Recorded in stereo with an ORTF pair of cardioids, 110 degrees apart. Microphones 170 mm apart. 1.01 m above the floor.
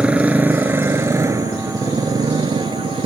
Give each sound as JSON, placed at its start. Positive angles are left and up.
{"t": 0.0, "sound": "a motorcycle", "azimuth_deg": -5}